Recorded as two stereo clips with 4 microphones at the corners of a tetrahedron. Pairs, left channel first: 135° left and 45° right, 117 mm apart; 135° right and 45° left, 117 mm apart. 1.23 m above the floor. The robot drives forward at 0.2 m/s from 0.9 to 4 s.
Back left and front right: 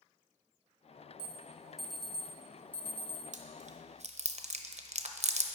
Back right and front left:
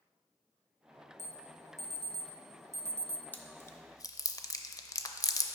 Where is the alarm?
35° left, 0.7 m; by 3.2 s 70° left, 0.5 m.